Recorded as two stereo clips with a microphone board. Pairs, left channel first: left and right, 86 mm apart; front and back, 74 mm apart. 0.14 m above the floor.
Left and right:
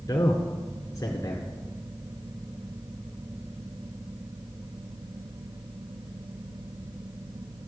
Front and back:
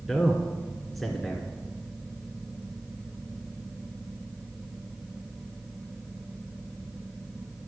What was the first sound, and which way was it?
A man speaking, 85° left.